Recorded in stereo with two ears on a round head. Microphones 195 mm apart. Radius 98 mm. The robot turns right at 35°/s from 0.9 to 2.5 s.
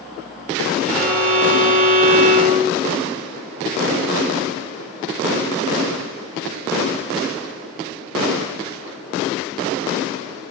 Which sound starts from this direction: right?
A violin, at 0.9 s.